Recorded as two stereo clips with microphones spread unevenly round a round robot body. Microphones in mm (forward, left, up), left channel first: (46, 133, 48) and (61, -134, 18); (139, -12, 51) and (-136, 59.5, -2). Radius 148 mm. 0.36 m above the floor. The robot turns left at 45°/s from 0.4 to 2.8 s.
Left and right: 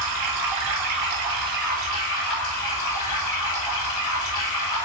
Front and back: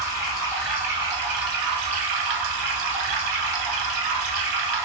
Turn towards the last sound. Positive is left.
turn(degrees=160)